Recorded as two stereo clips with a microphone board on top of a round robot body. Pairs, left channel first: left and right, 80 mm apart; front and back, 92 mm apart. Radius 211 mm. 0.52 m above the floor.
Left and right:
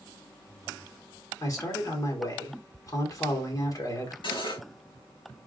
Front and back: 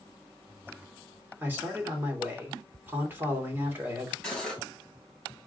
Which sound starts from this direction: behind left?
A man speaking, at 1.4 s.